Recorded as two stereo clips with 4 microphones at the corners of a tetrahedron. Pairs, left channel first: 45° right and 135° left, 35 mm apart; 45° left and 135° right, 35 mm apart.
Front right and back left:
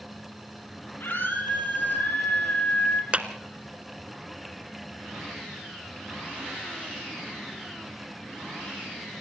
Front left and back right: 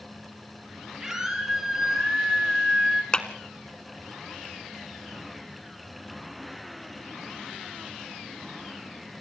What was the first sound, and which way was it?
A scream, 60° right.